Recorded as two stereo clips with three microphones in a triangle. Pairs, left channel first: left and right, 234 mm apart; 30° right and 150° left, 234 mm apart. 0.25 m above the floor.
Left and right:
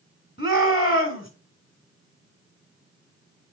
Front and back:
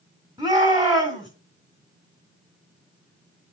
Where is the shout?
90° left, 1.9 m.